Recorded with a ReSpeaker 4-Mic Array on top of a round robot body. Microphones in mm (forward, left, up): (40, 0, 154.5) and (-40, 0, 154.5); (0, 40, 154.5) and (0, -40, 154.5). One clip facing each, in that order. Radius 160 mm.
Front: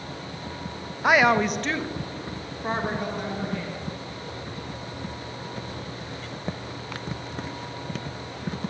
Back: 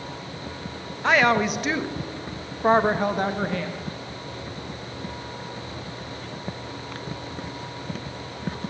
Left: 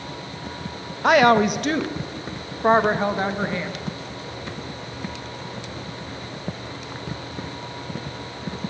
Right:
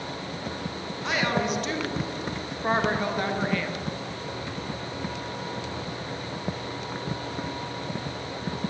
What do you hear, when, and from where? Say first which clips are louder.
1.0 s a woman speaking: even, left 11 dB; 75° left, 1.4 m; by 3.8 s 160° left, 2 m